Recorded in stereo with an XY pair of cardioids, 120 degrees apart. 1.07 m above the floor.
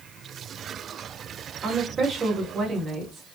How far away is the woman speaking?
About 1.9 m.